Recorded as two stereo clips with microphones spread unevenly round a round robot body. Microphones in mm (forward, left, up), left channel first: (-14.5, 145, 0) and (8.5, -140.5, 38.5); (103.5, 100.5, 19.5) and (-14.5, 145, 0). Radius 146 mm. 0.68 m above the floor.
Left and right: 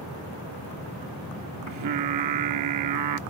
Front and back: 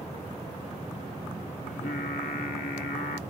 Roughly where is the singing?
Right.